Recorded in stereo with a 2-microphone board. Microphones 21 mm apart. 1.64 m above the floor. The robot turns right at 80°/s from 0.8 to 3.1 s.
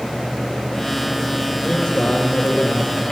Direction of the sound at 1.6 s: 20° left.